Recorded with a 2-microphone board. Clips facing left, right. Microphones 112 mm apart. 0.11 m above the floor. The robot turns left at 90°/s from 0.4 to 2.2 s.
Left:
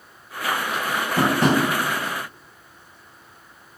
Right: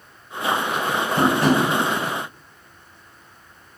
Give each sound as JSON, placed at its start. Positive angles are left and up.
{"t": 1.2, "sound": "tapping", "side_deg": 0, "distance_m": 1.2}